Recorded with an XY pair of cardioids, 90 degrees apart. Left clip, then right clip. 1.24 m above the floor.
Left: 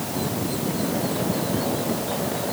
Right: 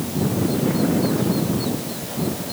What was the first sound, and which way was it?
Only background noise.